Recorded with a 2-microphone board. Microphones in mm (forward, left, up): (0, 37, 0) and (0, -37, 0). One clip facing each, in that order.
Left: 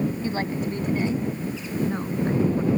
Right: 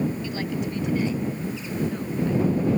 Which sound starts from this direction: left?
A woman speaking, at 0.2 s.